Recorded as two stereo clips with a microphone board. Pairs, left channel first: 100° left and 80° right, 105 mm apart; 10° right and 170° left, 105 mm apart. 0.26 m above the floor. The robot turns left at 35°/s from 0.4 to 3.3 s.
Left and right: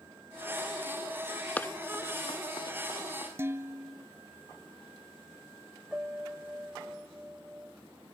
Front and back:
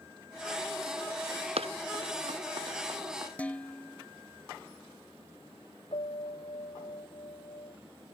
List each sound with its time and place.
1.6 s running footsteps: 175° left; by 3.3 s 110° left
3.4 s dishes clattering: 70° right
5.9 s a piano: straight ahead